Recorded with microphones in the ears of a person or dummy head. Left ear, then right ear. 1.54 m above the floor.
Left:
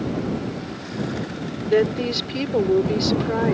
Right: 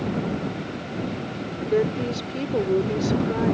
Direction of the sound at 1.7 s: 25° left (ahead or behind).